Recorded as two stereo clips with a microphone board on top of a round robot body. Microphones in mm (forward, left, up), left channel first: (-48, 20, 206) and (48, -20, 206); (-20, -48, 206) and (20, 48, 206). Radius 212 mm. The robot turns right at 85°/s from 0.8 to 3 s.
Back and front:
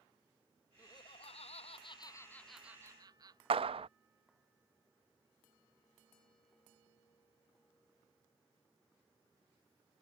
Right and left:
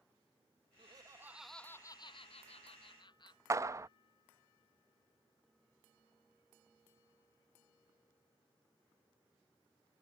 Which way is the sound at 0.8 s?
100° left.